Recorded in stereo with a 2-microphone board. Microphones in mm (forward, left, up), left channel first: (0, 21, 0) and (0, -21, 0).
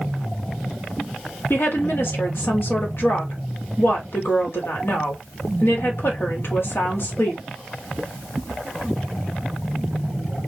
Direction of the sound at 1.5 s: 60° left (ahead or behind).